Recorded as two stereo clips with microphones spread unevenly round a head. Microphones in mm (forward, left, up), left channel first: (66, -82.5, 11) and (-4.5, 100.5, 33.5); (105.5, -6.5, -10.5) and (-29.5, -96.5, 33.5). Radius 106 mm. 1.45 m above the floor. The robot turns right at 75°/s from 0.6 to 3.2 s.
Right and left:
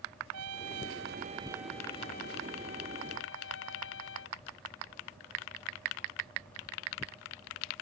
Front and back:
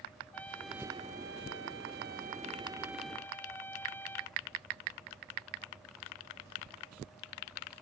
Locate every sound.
0.3 s a trumpet: 120° left; by 4.4 s 45° right